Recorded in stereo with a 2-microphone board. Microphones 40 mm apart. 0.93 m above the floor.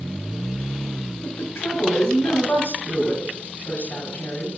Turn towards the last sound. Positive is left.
turn(degrees=70)  # may be behind; listen again after turning